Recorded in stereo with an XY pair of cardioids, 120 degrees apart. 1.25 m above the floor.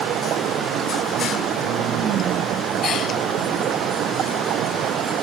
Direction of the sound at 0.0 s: 65° right.